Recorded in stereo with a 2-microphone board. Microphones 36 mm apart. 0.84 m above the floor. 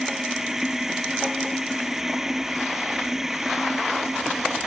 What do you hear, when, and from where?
0.0 s running water: 10° right (ahead or behind)